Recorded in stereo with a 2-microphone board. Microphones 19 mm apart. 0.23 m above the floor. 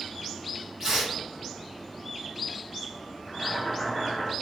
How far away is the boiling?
About 0.9 m.